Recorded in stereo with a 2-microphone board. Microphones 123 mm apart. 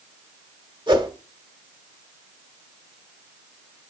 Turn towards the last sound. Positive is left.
turn(degrees=-35)  # may be behind; listen again after turning